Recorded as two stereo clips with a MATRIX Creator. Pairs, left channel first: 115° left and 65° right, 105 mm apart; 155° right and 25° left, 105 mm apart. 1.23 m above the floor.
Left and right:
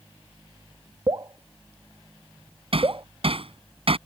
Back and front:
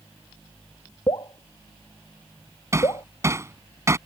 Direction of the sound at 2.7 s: 40° right.